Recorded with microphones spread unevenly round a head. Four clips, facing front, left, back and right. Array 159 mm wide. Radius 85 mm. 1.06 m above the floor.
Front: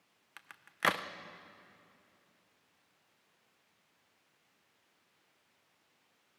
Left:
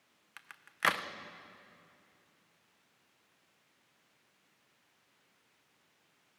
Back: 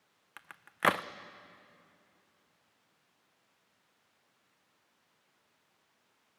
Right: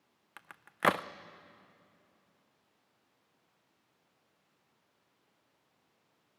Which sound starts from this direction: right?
A crack, at 0.4 s.